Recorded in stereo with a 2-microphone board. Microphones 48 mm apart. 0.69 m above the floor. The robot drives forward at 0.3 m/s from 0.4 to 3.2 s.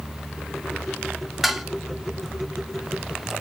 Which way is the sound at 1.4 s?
5° right (ahead or behind).